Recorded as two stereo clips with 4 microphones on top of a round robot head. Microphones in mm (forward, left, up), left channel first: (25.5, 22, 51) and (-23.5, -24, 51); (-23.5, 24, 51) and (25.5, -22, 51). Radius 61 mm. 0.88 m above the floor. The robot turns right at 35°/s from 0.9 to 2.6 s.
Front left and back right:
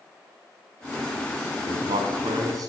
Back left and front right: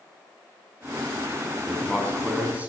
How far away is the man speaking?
About 6.5 m.